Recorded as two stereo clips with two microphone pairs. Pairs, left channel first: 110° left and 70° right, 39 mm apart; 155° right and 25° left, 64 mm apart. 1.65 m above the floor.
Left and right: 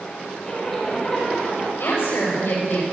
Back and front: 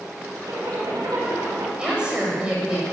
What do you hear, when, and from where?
0.5 s a zipper: 40° left, 5 m
1.8 s a woman speaking: 100° left, 7.5 m